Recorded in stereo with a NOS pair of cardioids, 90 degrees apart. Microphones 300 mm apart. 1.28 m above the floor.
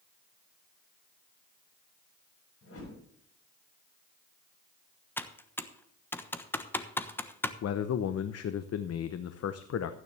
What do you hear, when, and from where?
2.6 s a whoosh: 45° left, 7.5 m
5.2 s typing on a keyboard: 5° left, 1.1 m
7.6 s a man speaking: 55° left, 0.9 m